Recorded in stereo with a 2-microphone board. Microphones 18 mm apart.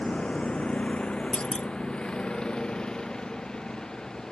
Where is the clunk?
55° left (ahead or behind).